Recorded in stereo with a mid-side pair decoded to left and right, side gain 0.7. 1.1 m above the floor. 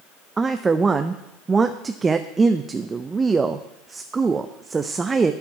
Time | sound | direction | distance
0.4 | a woman speaking | 20° right | 0.5 m